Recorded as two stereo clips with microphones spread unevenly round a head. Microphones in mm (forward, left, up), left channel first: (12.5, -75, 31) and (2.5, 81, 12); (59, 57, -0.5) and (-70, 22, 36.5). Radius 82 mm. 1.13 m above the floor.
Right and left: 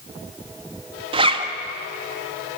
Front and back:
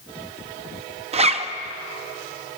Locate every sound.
1.1 s a zipper: 155° left, 1.3 m